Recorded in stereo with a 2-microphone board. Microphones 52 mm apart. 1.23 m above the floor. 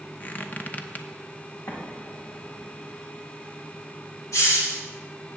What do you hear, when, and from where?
0.2 s a squeak: 35° left (ahead or behind), 0.8 m
1.7 s an explosion: 70° left (ahead or behind), 3 m
4.3 s a hiss: 85° left, 3 m